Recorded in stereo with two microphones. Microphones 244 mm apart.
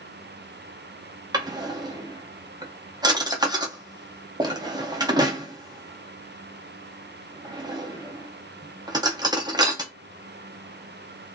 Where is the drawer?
15° right (ahead or behind), 0.5 m.